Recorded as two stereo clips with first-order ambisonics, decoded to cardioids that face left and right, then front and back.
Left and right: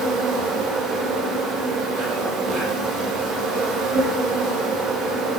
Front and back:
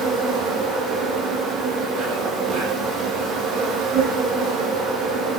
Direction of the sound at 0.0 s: 125° right.